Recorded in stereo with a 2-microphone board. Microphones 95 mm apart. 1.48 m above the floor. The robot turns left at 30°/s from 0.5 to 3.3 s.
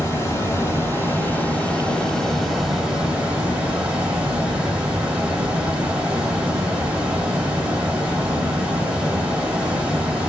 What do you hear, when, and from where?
0.0 s running water: 65° left, 1.4 m; by 10.3 s 20° right, 1.4 m